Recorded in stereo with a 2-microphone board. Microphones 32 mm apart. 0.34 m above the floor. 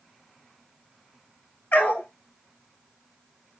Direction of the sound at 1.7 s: 60° left (ahead or behind).